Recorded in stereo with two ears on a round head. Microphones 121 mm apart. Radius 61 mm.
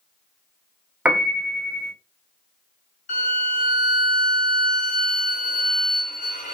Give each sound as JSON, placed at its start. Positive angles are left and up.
{"t": 1.1, "sound": "a piano", "side_deg": -10, "distance_m": 0.5}
{"t": 3.1, "sound": "a violin", "side_deg": 60, "distance_m": 2.0}